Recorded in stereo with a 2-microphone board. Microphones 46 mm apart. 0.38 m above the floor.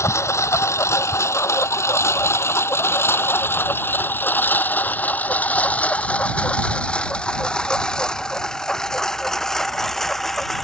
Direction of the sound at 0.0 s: 85° left.